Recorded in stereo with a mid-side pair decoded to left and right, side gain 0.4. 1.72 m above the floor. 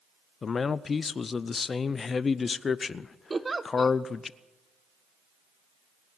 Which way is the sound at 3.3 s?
25° right.